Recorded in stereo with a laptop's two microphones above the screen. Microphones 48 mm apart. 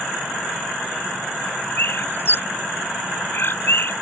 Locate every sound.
1.8 s a bird: 45° left (ahead or behind)